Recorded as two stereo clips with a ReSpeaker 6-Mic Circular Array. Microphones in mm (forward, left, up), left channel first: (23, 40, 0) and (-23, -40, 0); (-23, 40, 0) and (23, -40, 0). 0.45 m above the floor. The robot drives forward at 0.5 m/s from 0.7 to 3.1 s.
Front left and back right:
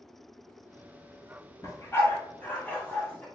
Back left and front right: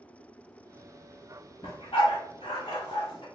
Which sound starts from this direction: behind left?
A dog barking, at 1.6 s.